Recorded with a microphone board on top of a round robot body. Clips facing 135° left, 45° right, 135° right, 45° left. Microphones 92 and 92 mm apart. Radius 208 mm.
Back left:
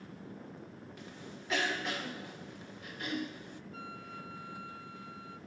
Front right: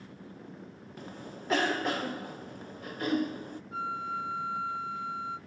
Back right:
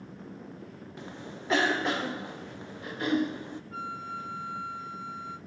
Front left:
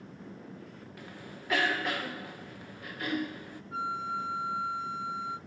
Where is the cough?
75° right, 0.7 m.